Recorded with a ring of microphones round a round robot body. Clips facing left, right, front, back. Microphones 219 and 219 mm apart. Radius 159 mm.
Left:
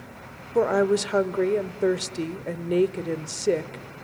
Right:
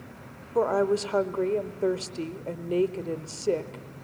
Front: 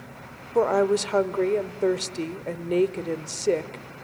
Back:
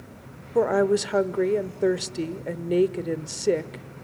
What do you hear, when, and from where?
0.6 s a woman speaking: 125° left, 0.8 m